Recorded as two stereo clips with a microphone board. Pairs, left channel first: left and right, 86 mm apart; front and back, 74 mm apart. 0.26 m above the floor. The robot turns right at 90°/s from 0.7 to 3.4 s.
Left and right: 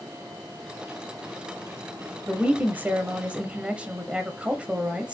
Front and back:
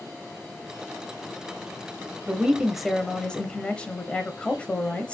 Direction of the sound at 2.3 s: 145° right.